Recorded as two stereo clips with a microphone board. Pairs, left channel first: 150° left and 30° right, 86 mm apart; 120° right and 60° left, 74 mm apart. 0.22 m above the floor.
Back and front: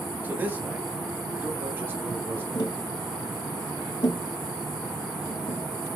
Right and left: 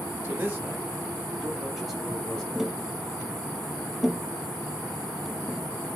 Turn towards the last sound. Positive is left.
turn(degrees=145)